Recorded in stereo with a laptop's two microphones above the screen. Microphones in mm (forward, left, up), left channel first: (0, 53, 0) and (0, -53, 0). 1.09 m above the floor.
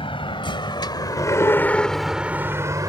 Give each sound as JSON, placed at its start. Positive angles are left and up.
{"t": 0.0, "sound": "a vehicle", "side_deg": 60}